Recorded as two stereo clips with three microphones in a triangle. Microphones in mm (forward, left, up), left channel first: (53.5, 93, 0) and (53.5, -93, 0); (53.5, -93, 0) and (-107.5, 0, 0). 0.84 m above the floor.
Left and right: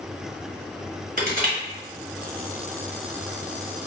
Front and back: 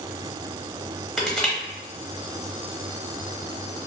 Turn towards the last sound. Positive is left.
turn(degrees=-120)